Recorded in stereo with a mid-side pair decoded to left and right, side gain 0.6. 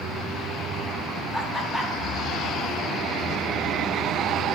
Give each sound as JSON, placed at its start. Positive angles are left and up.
{"t": 1.3, "sound": "laughter", "azimuth_deg": 10, "distance_m": 1.8}